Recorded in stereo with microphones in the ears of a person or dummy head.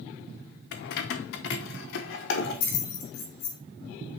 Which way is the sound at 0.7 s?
45° left (ahead or behind).